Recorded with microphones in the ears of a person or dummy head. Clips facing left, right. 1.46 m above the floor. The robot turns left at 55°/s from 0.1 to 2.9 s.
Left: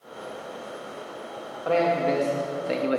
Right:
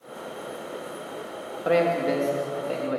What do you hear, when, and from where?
1.6 s a man speaking: 150° right, 0.6 m; by 3.0 s 145° left, 0.6 m